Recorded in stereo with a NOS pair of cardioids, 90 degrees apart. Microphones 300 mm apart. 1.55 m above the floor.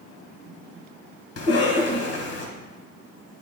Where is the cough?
50° left, 1.8 m.